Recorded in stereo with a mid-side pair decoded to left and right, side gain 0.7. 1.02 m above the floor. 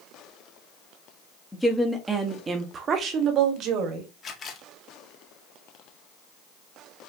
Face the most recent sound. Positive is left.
turn(degrees=35)